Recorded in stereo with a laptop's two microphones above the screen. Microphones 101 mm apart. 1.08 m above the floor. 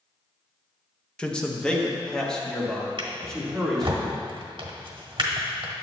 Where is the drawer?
50° right (ahead or behind), 1.2 m.